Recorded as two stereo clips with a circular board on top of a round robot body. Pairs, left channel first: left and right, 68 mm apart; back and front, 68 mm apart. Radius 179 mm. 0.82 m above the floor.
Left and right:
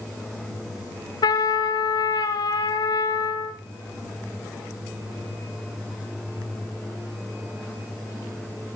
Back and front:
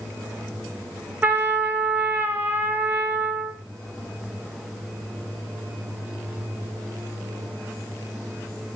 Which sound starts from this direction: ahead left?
A trumpet, at 1.2 s.